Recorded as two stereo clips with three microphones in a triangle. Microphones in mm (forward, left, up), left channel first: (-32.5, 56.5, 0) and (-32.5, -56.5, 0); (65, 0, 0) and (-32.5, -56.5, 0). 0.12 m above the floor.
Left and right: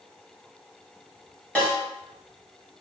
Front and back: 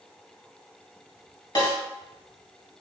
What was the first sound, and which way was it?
A snare drum, 20° left.